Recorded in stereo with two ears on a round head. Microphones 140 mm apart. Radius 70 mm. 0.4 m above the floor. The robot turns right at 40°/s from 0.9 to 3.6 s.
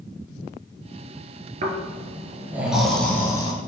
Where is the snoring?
50° right, 1.6 m; by 3.5 s 25° left, 1.6 m.